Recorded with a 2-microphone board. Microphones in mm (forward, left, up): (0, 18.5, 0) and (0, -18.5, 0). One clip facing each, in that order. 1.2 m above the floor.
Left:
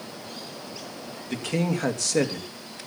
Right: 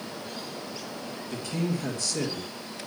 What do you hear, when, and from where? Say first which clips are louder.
1.3 s a man speaking: left 4 dB; 75° left (ahead or behind), 2.5 m